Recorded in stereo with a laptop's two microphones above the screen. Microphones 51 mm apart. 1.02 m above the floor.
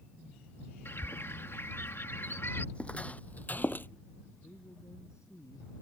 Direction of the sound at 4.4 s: 90° left.